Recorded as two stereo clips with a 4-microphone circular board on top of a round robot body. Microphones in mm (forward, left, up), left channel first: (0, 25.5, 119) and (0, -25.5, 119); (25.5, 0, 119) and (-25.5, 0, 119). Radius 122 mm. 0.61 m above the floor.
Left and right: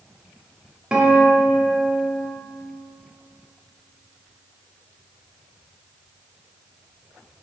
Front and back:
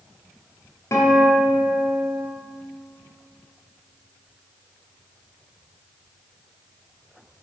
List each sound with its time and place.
0.9 s a guitar: 15° right, 1.7 m